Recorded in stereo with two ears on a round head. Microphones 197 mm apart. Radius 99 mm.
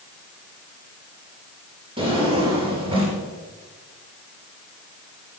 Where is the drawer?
25° right (ahead or behind), 3 m.